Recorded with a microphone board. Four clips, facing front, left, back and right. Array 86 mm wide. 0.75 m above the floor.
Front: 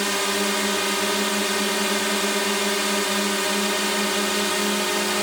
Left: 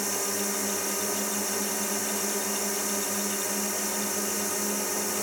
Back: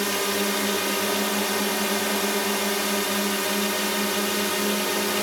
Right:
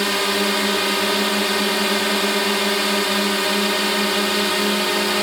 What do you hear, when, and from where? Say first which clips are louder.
0.0 s a drone: right 11 dB, front 1 dB; 75° right